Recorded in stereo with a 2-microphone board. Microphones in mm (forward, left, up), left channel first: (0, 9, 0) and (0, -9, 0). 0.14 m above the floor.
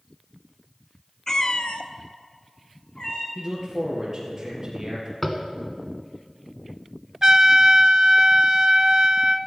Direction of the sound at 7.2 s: 40° right (ahead or behind).